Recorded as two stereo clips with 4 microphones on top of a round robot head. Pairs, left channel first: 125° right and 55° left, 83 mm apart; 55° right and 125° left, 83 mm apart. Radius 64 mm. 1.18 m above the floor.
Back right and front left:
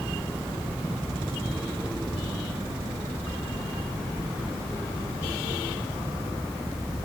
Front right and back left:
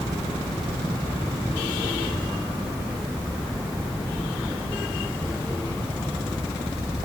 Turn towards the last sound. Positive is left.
No sound to turn to.